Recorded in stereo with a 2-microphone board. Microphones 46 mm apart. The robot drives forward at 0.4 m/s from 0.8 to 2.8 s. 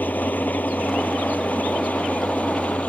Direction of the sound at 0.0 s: 40° left (ahead or behind).